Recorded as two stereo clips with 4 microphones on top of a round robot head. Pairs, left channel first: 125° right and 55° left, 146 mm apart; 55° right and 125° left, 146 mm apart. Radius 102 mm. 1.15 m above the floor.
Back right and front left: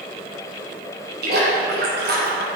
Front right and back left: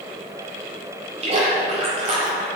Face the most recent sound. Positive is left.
turn(degrees=70)